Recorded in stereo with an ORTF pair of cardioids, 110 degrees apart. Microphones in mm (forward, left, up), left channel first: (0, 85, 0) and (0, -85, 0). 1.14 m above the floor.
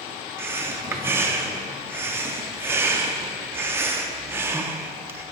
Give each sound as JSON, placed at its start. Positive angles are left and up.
{"t": 0.4, "sound": "breathing", "azimuth_deg": -15, "distance_m": 0.6}